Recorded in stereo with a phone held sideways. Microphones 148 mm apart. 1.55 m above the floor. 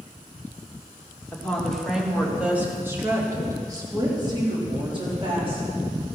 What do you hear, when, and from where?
1.3 s a woman speaking: 10° left (ahead or behind), 2 m; by 5.8 s 40° right (ahead or behind), 4 m